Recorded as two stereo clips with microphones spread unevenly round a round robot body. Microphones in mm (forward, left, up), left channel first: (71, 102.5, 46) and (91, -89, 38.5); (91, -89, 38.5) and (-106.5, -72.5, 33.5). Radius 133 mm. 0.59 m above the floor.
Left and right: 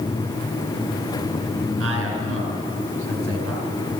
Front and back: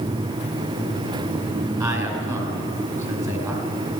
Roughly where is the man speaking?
Right.